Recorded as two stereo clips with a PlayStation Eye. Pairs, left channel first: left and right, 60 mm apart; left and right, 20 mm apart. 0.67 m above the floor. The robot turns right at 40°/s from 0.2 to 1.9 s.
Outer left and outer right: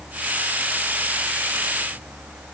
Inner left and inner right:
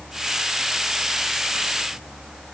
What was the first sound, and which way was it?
Only background noise.